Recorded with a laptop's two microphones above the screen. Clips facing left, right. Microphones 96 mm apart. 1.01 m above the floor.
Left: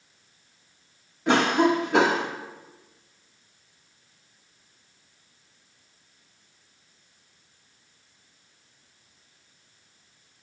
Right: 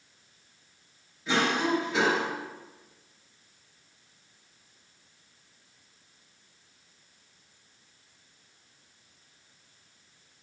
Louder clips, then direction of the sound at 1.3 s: Left 6 dB; 60° left (ahead or behind).